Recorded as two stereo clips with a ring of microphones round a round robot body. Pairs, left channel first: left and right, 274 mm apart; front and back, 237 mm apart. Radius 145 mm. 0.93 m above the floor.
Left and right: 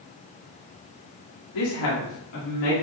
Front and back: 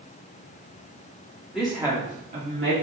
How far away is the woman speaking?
About 2 m.